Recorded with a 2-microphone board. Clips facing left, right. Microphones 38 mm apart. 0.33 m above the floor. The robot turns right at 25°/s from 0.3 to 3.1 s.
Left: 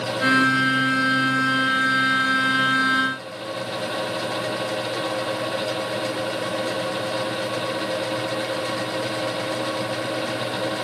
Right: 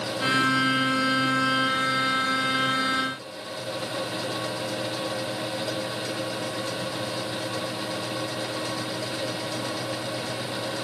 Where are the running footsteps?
No running footsteps in this recording.